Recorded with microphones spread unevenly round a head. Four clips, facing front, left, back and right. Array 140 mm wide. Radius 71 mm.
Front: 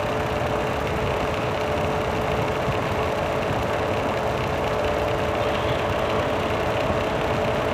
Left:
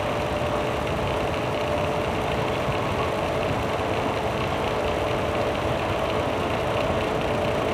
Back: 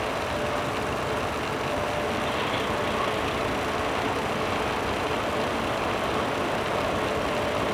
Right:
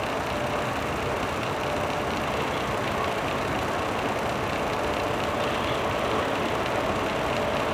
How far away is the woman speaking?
No woman speaking in this recording.